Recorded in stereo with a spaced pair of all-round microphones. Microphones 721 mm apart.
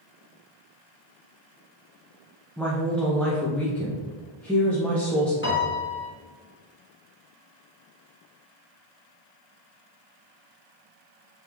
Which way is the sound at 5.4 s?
15° left (ahead or behind).